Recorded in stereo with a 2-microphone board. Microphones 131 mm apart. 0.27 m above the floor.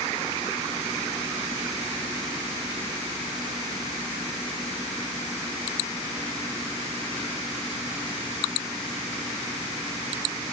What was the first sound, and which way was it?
Only background noise.